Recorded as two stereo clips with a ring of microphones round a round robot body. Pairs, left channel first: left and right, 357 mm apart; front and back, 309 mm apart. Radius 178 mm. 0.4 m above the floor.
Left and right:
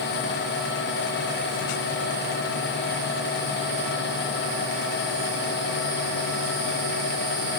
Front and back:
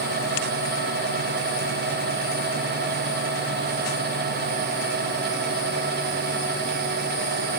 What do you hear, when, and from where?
Only background noise.